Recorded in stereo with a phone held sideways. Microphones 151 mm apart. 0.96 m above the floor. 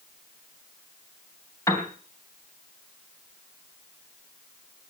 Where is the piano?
20° left (ahead or behind), 3.5 m.